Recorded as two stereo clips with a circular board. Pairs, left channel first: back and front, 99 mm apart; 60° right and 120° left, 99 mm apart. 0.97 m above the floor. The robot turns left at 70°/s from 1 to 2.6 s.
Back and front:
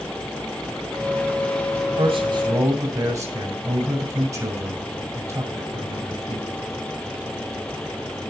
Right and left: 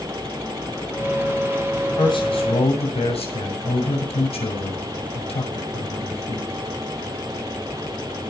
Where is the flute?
No flute in this recording.